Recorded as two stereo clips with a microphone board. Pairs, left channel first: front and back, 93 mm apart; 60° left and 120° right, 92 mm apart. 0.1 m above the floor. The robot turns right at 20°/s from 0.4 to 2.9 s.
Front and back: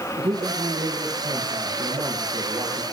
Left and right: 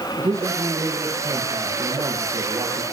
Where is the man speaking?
175° left, 3.5 m; by 2.8 s 135° right, 3.5 m.